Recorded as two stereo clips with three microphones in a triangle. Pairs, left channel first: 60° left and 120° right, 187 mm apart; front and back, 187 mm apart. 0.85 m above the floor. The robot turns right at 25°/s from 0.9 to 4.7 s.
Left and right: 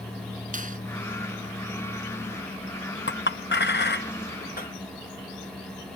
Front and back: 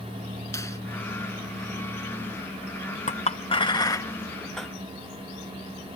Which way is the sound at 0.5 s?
75° right.